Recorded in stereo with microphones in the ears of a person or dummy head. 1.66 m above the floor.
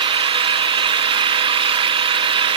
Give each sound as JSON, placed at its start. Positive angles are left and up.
{"t": 0.0, "sound": "an engine running", "side_deg": -30, "distance_m": 0.9}